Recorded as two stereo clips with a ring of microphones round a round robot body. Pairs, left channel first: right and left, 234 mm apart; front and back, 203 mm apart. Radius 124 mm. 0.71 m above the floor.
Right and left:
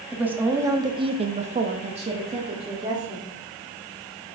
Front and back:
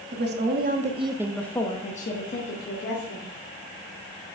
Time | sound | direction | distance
0.1 | a woman speaking | 175° left | 1.6 m